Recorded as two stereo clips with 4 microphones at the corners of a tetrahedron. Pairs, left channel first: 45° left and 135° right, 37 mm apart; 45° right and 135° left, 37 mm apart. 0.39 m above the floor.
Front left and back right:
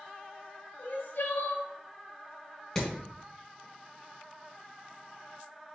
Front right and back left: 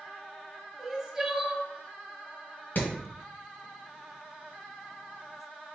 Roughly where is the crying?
Ahead left.